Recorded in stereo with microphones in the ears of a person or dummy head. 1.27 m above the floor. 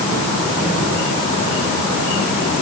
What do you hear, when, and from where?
Only background noise.